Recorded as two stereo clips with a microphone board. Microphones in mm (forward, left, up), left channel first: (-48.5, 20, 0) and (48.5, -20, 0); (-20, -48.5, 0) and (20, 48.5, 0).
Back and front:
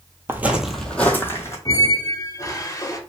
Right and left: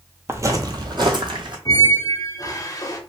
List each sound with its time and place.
0.3 s footsteps: 25° left, 0.6 m; by 1.6 s 100° left, 1.0 m
1.6 s a squeak: 155° right, 0.6 m